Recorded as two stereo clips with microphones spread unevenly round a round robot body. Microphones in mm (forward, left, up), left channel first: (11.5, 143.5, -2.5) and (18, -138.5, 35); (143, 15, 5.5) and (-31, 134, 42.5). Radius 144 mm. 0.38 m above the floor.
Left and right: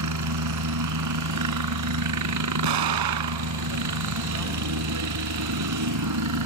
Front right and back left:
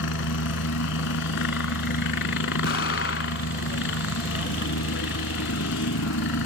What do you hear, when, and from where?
0.0 s a helicopter: 65° right
2.6 s an explosion: 85° right